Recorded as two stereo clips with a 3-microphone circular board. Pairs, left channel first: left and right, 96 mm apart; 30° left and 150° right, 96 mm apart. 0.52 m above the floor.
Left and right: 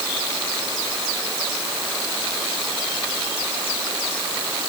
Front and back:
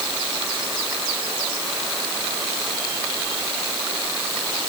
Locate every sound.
Only background noise.